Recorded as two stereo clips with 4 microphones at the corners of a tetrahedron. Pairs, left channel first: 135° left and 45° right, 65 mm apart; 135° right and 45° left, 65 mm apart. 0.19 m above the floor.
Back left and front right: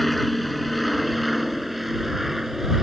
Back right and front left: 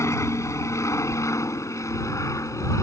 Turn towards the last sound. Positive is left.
turn(degrees=-130)